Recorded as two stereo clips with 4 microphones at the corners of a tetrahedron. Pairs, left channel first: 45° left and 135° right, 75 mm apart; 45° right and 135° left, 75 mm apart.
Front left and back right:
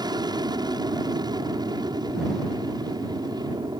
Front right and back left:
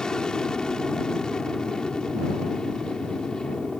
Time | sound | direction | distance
0.0 | an aircraft | 125° right | ?